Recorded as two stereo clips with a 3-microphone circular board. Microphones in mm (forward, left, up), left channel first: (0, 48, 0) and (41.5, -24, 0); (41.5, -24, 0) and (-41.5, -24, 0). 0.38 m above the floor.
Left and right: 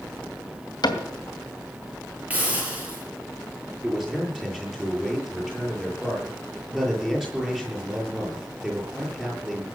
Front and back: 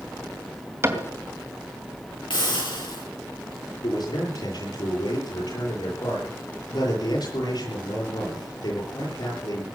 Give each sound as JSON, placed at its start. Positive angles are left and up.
{"t": 0.8, "sound": "a cupboard door", "azimuth_deg": 130, "distance_m": 2.5}
{"t": 2.3, "sound": "a hiss", "azimuth_deg": 10, "distance_m": 7.5}
{"t": 3.8, "sound": "a man speaking", "azimuth_deg": 25, "distance_m": 8.5}